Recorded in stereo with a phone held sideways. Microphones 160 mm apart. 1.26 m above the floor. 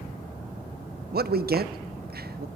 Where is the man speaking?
75° right (ahead or behind), 0.6 m.